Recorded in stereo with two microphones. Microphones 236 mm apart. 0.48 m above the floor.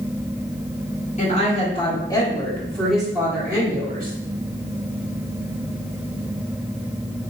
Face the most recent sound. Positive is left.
turn(degrees=-25)  # may be behind; listen again after turning